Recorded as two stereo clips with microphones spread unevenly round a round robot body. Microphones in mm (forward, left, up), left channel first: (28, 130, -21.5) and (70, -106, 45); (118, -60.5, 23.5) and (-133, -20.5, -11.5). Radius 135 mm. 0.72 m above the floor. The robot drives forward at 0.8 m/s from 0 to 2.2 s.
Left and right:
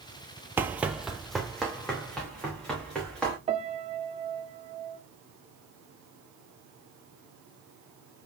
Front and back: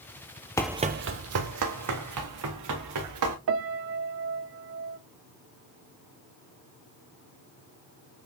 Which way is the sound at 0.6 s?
55° right.